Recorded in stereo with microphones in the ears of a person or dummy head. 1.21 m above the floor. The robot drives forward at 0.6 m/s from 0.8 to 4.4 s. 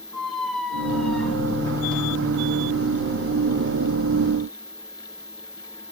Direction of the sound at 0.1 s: 5° right (ahead or behind).